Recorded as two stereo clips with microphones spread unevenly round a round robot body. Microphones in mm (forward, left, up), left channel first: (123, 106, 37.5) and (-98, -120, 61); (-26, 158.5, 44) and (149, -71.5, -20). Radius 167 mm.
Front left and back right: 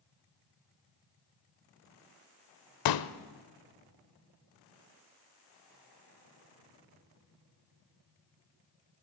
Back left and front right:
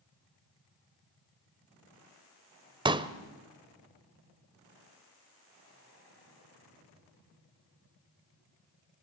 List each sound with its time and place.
2.9 s a pop: 25° left, 1.1 m